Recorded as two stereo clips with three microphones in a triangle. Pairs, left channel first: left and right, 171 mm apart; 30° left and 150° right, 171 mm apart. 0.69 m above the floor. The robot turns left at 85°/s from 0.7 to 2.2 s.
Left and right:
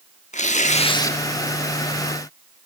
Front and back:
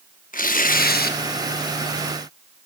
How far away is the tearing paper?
About 0.8 m.